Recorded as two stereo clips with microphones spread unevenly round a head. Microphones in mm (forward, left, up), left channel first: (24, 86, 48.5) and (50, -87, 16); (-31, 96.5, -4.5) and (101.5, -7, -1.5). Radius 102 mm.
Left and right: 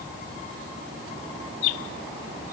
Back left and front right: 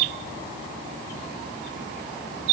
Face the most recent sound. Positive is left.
No sound to turn to.